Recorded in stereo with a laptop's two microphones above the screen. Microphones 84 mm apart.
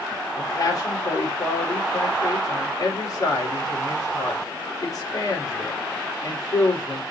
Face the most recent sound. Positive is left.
turn(degrees=45)  # may be behind; listen again after turning